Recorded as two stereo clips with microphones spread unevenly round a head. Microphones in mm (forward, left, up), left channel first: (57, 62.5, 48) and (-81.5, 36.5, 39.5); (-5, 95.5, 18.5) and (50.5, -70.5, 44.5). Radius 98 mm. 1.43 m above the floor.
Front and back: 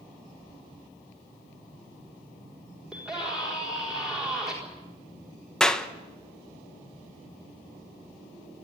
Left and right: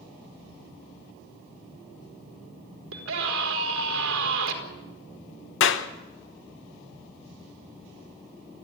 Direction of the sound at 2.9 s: 80° right.